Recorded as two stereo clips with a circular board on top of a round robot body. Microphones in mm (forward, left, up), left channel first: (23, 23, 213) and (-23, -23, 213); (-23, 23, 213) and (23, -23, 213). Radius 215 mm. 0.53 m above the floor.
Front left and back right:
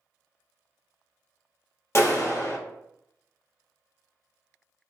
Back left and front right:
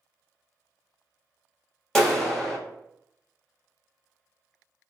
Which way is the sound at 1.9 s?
55° left.